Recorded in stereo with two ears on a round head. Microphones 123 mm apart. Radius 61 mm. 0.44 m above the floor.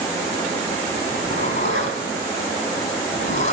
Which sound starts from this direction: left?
A zipper, at 1.1 s.